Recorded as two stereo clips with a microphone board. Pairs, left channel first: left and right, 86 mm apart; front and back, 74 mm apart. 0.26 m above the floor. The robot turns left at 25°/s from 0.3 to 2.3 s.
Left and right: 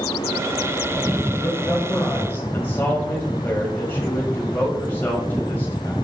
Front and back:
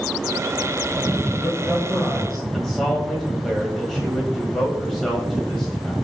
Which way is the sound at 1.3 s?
105° left.